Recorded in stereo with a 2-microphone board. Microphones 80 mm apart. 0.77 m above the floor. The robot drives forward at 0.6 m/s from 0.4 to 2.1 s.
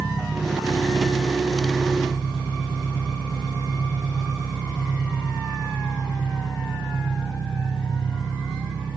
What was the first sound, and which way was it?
An engine running, 10° left (ahead or behind).